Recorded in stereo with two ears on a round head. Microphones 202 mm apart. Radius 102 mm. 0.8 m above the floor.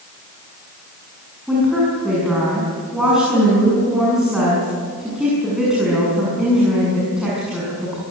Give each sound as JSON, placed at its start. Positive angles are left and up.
{"t": 1.5, "sound": "a woman speaking", "side_deg": -5, "distance_m": 7.0}